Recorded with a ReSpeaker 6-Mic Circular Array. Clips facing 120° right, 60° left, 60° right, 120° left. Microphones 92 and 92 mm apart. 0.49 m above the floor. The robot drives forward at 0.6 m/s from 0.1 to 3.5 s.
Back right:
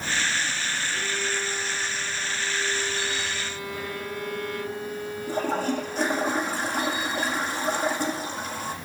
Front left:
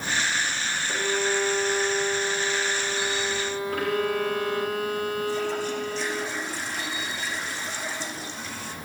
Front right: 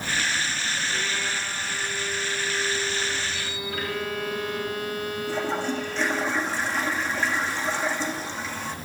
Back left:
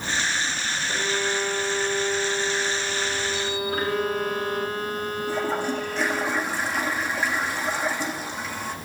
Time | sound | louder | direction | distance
0.9 | a violin | front left 9 dB, back left 4 dB | 65° left | 2.5 m
3.7 | a violin | front left 11 dB, back left 4 dB | 65° left | 1.8 m
5.3 | a toilet flushing | back right 1 dB, back left 1 dB | 160° right | 5.5 m